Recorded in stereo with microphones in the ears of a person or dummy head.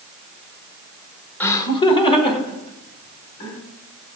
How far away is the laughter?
About 0.6 m.